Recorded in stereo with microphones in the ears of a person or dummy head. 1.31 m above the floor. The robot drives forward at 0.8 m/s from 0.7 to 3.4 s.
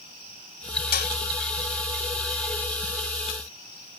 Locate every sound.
0.9 s dishes clattering: 55° left (ahead or behind)